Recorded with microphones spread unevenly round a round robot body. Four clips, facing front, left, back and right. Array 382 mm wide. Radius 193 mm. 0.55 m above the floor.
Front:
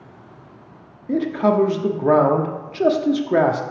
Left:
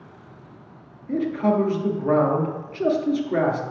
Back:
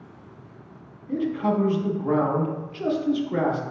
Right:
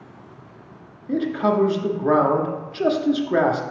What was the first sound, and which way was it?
A man speaking, 10° right.